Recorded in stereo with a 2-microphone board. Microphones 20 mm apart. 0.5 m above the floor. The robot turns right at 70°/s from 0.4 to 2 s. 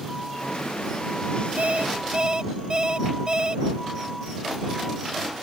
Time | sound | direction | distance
1.6 | an alarm clock | 70° right | ?